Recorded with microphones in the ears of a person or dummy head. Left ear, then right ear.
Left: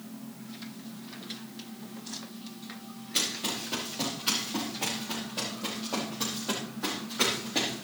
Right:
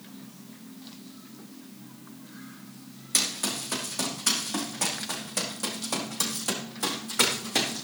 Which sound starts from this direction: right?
Running footsteps, at 3.1 s.